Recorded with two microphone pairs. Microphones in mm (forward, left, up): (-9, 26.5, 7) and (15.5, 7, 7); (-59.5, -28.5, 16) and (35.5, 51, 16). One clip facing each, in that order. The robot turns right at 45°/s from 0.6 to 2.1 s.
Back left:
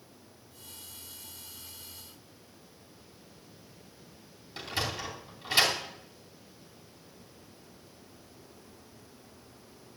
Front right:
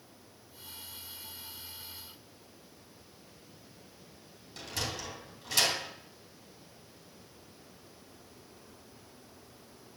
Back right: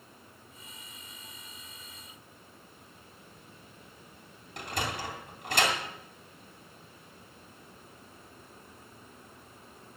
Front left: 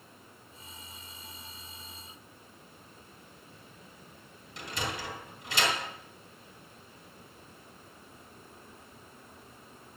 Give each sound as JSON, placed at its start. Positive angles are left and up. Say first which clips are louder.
{"t": 4.6, "sound": "a sliding door", "louder": "back left 4 dB, back right 2 dB", "azimuth_deg": -160, "distance_m": 3.0}